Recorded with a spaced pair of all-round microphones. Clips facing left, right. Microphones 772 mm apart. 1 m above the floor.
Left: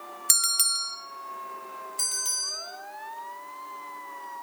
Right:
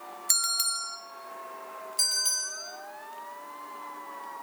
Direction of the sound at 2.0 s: 65° right (ahead or behind).